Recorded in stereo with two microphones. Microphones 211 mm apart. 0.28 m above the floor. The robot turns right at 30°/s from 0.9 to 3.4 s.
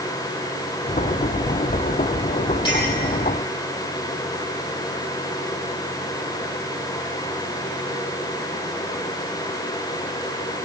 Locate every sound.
2.6 s a clink: 20° left (ahead or behind), 7 m; by 2.9 s 15° left (ahead or behind), 7 m